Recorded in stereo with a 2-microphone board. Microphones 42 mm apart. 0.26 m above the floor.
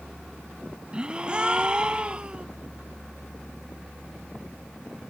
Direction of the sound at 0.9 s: 25° right (ahead or behind).